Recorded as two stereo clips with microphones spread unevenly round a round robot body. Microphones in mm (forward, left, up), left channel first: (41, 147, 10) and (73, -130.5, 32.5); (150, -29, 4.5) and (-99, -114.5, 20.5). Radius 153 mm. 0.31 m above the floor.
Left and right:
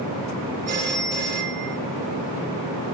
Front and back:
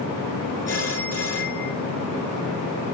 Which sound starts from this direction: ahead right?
A phone ringing, at 0.7 s.